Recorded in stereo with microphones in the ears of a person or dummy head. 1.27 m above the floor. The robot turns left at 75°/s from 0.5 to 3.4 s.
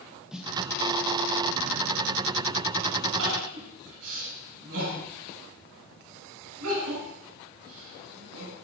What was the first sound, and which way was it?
A snare drum, centre (ahead or behind).